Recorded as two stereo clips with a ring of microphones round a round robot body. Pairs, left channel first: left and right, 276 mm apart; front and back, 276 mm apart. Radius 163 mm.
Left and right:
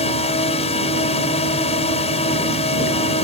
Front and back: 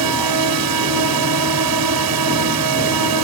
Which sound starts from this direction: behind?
A drone, at 0.0 s.